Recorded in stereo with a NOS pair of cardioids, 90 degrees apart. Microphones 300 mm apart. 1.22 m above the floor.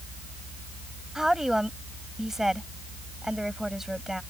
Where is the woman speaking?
Straight ahead.